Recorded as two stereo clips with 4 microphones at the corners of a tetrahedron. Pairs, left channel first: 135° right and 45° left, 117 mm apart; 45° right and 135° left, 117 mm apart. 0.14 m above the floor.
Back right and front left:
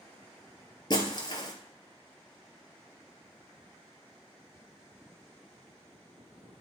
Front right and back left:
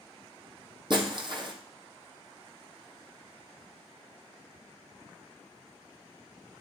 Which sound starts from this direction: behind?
Breaking glass, at 0.9 s.